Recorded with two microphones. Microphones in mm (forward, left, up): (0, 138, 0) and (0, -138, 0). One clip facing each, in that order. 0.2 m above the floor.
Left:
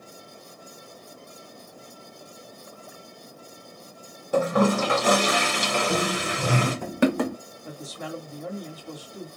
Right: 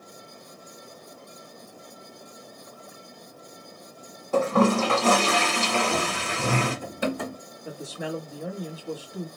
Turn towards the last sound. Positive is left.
turn(degrees=-10)  # may be behind; listen again after turning